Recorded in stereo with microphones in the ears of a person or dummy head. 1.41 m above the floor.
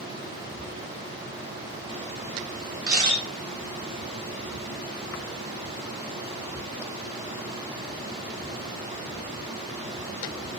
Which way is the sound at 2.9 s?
25° right (ahead or behind).